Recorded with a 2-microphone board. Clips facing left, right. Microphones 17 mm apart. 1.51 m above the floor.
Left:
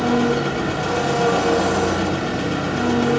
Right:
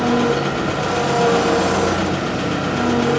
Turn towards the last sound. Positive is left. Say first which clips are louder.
# right 1 dB
turn(degrees=-20)  # may be behind; listen again after turning